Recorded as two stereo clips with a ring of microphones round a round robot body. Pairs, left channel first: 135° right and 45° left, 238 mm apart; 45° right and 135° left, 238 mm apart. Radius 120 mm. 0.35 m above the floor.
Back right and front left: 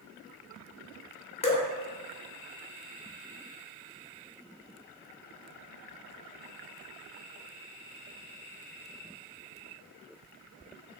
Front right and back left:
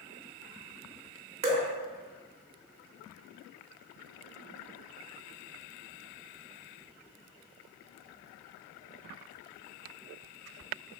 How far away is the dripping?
About 0.8 m.